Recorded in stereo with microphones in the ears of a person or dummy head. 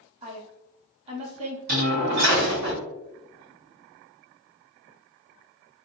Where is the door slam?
55° right (ahead or behind), 1.0 m.